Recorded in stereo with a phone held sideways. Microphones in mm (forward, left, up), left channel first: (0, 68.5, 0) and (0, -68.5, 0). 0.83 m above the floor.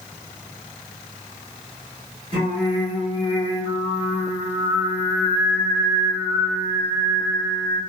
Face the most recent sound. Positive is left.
turn(degrees=-40)  # may be behind; listen again after turning